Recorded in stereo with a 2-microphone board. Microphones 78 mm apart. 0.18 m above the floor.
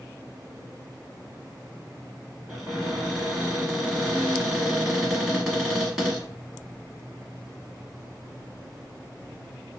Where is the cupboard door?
10° right (ahead or behind), 1.1 m.